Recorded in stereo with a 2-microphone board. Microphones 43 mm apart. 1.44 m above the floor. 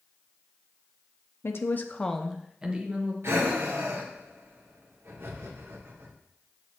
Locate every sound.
1.4 s a woman speaking: 60° left (ahead or behind), 0.8 m; by 3.1 s 30° right (ahead or behind), 1.5 m
3.2 s breathing: 60° right (ahead or behind), 1.1 m